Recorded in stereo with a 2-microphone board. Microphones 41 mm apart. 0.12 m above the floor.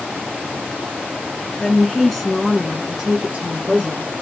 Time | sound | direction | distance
1.6 | a woman speaking | 20° left (ahead or behind) | 1.2 m